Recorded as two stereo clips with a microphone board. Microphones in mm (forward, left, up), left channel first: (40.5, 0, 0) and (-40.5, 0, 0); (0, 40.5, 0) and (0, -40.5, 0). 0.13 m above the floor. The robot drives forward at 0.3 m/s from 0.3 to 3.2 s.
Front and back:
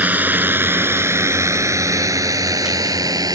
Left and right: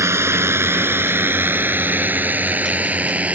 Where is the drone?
125° right; by 3.3 s 160° right.